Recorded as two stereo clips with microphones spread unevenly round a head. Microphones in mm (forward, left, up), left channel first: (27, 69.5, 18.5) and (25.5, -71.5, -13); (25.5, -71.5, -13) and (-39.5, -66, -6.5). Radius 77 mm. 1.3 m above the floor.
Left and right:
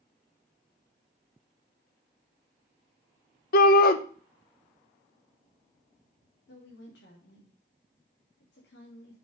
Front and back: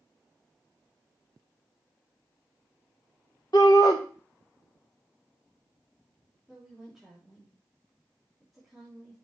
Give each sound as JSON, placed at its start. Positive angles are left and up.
{"t": 3.5, "sound": "a shout", "azimuth_deg": 65, "distance_m": 1.0}
{"t": 6.5, "sound": "a woman speaking", "azimuth_deg": 90, "distance_m": 3.0}